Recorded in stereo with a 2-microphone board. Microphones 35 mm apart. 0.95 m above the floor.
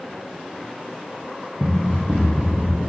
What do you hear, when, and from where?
1.6 s running footsteps: 40° right (ahead or behind), 1.9 m; by 2.9 s 60° right (ahead or behind), 2 m